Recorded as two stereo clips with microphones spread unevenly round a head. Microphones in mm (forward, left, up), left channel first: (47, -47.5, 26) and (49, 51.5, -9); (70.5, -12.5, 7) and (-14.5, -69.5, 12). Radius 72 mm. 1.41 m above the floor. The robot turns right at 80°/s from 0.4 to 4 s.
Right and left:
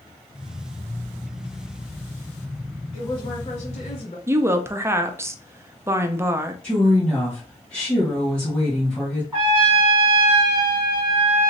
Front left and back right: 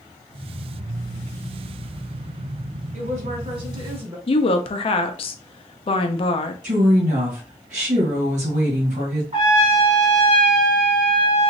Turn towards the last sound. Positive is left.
turn(degrees=170)